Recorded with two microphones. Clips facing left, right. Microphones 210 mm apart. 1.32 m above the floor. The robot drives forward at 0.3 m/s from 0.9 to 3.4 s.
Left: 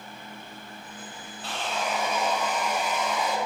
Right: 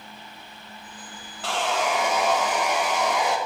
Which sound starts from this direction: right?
Sawing, at 1.4 s.